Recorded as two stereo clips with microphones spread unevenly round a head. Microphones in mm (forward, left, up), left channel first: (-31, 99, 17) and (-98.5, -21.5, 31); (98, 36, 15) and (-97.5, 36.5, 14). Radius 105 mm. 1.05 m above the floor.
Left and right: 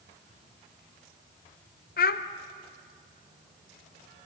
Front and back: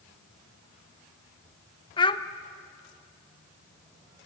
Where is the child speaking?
65° left, 1.2 m.